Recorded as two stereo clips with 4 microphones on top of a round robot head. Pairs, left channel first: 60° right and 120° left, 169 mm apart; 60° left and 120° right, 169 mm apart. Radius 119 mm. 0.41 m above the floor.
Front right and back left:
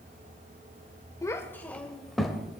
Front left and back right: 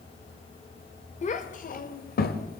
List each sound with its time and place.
1.2 s a child speaking: 15° left, 1.1 m; by 2.6 s 35° left, 1.5 m